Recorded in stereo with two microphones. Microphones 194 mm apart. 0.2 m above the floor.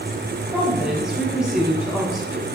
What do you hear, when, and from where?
0.5 s a woman speaking: 5° right (ahead or behind), 1.2 m